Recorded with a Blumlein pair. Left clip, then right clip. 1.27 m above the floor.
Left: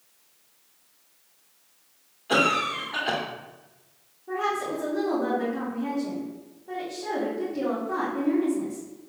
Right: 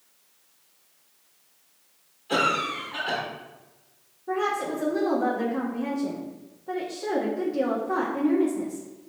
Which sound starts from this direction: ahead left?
A cough, at 2.3 s.